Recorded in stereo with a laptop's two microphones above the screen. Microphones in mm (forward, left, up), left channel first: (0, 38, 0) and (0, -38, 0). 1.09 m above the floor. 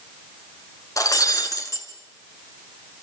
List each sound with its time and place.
1.0 s breaking glass: 50° left (ahead or behind), 2.5 m